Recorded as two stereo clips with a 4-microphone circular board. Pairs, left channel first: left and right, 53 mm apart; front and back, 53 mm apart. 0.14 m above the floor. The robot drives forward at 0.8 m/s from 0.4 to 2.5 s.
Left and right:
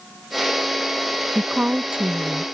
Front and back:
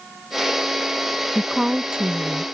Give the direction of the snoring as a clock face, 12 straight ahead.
I don't hear snoring.